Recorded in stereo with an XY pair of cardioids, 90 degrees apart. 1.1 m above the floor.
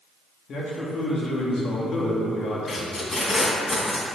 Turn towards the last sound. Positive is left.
turn(degrees=40)